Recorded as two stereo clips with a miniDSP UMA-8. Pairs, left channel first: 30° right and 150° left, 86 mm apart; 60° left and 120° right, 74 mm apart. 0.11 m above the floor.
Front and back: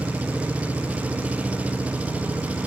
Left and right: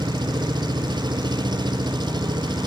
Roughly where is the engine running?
Behind right.